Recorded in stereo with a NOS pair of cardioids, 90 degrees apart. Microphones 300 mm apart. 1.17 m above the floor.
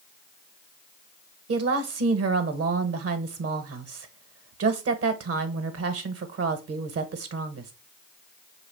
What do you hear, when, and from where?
1.5 s a woman speaking: 55° right, 1.0 m